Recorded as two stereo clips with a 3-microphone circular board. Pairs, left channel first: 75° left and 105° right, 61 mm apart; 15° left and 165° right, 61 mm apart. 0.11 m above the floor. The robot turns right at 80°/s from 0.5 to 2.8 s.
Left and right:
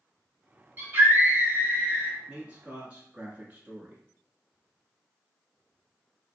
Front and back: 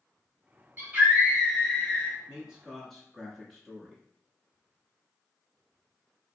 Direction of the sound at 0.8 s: 145° right.